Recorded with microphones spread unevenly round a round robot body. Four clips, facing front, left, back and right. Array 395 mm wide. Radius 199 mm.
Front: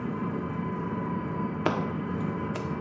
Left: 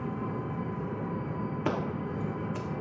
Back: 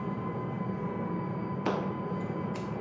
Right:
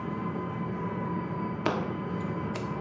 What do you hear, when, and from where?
0.0 s an engine running: 10° right, 2 m
1.6 s scissors: straight ahead, 1.3 m